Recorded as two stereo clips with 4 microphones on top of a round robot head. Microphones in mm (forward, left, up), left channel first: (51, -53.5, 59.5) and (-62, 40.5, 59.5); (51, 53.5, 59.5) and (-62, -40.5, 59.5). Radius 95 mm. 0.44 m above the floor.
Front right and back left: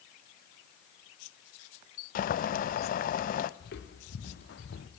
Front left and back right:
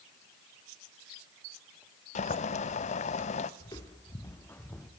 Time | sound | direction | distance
2.1 | boiling | 5° right | 0.8 m
3.6 | footsteps | 25° right | 3.5 m